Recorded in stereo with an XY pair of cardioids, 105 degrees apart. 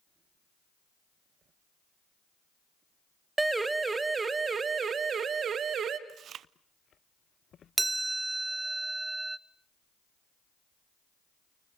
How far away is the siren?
About 2 m.